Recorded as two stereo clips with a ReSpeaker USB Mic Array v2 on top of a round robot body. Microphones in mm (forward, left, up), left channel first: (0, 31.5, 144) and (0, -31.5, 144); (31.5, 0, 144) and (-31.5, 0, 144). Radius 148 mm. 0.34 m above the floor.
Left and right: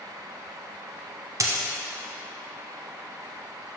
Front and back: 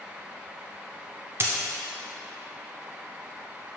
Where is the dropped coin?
130° right, 0.6 m.